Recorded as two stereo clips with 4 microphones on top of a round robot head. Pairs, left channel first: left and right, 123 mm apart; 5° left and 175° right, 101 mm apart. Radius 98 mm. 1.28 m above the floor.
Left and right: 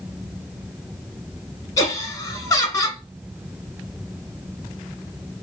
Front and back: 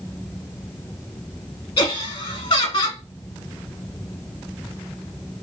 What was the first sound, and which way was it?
Laughter, 30° left.